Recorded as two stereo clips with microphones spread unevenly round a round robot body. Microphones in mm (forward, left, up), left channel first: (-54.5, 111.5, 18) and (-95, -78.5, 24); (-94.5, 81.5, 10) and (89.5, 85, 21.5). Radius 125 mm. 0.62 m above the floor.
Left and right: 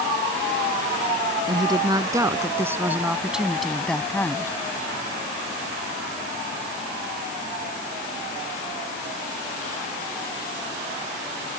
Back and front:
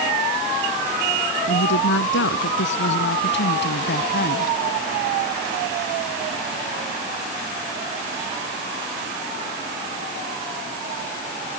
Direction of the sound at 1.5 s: 170° right.